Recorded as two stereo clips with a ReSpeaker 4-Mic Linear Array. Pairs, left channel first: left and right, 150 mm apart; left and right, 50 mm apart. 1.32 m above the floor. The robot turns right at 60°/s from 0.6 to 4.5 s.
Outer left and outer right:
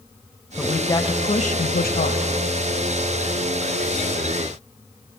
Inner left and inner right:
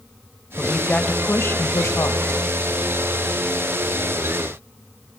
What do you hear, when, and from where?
0.6 s a woman speaking: 5° left, 1.3 m; by 2.3 s 110° left, 1.3 m